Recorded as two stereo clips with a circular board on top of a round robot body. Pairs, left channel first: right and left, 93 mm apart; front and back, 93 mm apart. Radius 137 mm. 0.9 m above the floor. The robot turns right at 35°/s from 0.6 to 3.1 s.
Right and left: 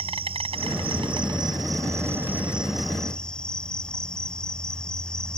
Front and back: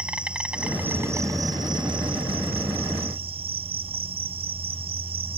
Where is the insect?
100° left; by 5.4 s 170° right.